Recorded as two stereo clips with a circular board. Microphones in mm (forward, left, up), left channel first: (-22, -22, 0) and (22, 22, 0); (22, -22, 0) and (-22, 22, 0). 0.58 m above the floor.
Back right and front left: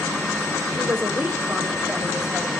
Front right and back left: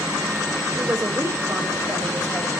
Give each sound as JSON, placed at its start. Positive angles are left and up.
{"t": 0.8, "sound": "a man speaking", "azimuth_deg": 95, "distance_m": 2.5}